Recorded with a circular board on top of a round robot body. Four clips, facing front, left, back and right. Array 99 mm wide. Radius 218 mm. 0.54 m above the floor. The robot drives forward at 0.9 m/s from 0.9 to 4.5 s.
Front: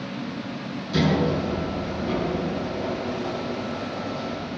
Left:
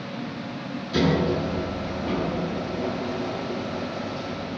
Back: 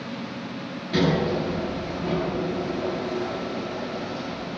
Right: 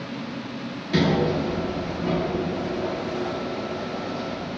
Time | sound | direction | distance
0.9 | a sliding door | 110° right | 9.5 m